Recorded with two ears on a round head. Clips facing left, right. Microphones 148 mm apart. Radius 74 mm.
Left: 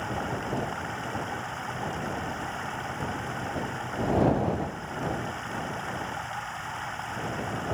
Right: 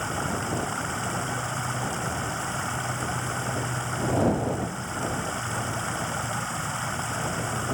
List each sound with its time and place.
0.0 s running water: 65° right (ahead or behind)